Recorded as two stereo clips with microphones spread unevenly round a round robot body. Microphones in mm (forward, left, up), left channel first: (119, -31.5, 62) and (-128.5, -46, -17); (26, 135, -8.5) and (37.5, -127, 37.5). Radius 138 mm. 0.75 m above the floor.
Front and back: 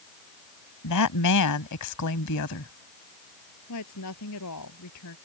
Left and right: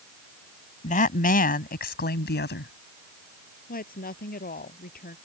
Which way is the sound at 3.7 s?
35° left.